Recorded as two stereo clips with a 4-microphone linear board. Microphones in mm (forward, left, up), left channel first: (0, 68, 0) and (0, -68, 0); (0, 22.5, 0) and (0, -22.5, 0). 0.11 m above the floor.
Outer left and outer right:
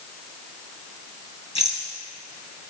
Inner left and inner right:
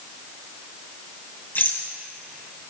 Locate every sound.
1.6 s a rattle: 45° left (ahead or behind), 3 m